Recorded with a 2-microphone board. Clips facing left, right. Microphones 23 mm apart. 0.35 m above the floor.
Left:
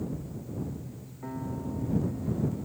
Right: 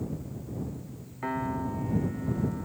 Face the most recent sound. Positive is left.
turn(degrees=-70)  # may be behind; listen again after turning